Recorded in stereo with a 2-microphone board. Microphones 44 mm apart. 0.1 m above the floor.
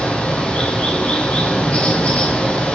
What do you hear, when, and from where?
0.0 s running water: 30° left (ahead or behind), 1.8 m